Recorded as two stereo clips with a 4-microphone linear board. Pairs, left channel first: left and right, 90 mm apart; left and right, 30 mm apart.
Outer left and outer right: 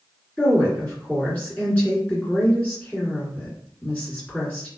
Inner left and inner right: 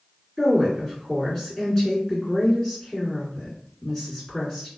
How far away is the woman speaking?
About 1.8 m.